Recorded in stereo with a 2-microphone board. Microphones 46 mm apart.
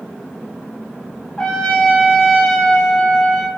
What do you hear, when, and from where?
1.4 s a trumpet: 25° left (ahead or behind), 0.7 m